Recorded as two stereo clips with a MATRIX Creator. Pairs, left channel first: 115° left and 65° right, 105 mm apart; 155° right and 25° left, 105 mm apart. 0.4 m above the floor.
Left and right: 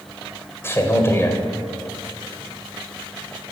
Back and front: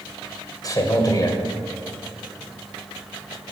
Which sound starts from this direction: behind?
A man speaking, at 0.6 s.